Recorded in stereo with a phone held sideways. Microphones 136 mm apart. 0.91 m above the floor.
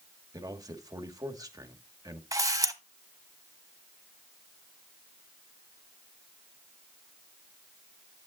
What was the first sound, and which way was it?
A man speaking, 25° right (ahead or behind).